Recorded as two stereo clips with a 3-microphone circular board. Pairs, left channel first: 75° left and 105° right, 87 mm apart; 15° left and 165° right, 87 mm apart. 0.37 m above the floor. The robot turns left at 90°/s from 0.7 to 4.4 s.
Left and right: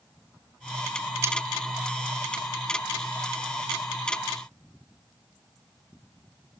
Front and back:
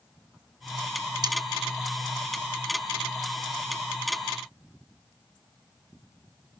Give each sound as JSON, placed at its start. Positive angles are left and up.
{"t": 1.2, "sound": "cutlery clinking", "azimuth_deg": -155, "distance_m": 0.7}